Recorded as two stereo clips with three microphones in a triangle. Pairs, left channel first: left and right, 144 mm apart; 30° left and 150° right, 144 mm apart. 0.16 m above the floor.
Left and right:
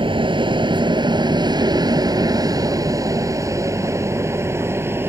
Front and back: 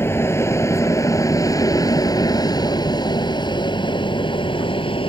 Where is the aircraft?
40° right; by 5.1 s 15° right.